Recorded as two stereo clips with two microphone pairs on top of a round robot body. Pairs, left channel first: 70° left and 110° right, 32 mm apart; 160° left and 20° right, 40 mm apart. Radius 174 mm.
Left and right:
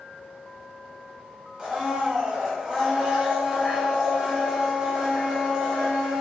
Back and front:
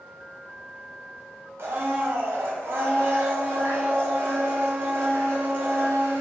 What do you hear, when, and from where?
1.6 s a blender: 40° right, 1.0 m